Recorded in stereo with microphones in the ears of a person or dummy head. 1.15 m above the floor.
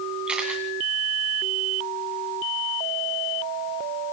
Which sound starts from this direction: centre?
A camera shutter, at 0.3 s.